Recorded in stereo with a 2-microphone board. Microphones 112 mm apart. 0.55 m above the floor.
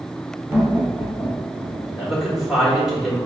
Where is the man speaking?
5° right (ahead or behind), 1.4 m.